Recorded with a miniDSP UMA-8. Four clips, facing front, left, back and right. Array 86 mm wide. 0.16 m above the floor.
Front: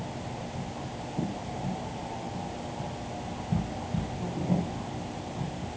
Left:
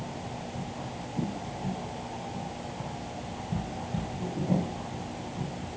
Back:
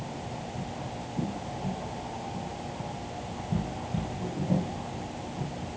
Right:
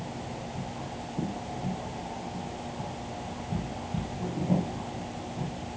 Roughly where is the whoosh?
I don't hear a whoosh.